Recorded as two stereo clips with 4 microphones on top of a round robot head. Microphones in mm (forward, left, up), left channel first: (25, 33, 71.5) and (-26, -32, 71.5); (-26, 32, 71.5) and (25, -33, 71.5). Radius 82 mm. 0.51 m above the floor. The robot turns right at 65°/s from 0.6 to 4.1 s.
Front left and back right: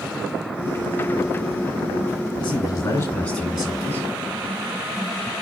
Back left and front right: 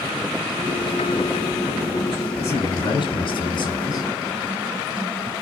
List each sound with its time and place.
2.4 s a man speaking: 65° left, 4 m; by 4.1 s 170° left, 4 m